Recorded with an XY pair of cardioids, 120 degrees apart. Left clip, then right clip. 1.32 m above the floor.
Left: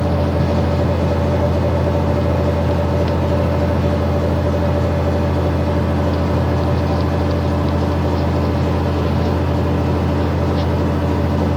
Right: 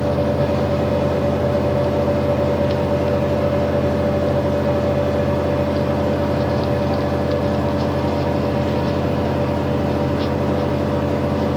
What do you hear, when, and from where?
0.0 s a fan: 40° left, 0.7 m